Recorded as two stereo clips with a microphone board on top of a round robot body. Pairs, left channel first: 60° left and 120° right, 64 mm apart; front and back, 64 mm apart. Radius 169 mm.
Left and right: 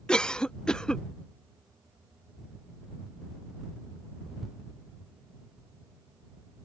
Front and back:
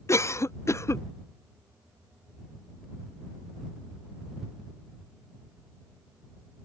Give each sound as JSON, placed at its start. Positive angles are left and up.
{"t": 0.1, "sound": "a cough", "azimuth_deg": -10}